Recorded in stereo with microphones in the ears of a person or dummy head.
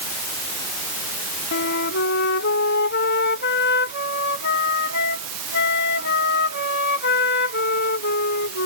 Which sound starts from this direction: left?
A flute, at 1.5 s.